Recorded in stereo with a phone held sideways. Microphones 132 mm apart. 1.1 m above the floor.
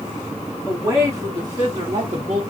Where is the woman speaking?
20° right (ahead or behind), 2.5 m; by 2.4 s 50° right (ahead or behind), 1.6 m.